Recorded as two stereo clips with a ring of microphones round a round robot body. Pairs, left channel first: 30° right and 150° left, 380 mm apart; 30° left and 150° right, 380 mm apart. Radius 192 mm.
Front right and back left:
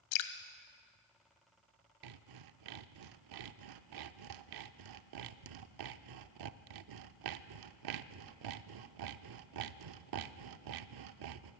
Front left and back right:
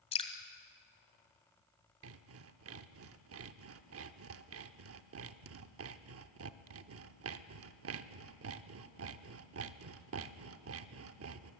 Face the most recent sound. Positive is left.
turn(degrees=160)